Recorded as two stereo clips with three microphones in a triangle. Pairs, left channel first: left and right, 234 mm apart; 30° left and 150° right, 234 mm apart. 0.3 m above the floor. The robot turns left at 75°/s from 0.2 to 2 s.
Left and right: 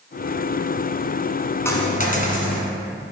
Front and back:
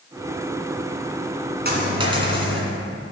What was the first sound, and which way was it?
A dropped coin, 170° left.